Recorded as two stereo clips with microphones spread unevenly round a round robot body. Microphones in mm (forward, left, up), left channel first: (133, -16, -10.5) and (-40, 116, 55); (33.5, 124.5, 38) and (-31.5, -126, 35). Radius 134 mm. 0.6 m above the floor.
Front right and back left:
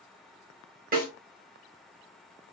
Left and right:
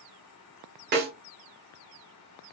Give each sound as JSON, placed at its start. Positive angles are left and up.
{"t": 0.9, "sound": "a snare drum", "azimuth_deg": -160, "distance_m": 0.9}